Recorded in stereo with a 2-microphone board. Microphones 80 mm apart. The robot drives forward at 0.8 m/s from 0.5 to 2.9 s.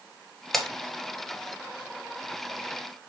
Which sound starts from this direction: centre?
Breaking glass, at 0.5 s.